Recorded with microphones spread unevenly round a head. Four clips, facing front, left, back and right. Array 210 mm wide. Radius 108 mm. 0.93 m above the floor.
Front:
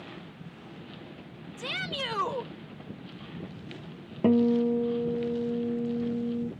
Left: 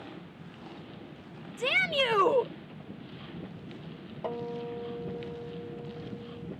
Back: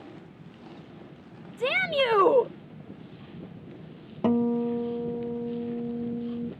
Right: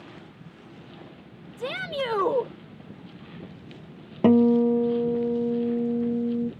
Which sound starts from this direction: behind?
A shout, at 1.6 s.